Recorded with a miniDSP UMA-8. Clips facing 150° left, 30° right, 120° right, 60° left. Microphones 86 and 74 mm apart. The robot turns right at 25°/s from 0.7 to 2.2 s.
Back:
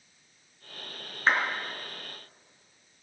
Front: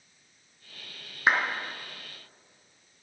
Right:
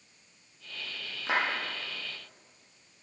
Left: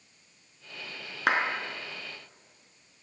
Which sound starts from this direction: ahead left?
A clap, at 1.3 s.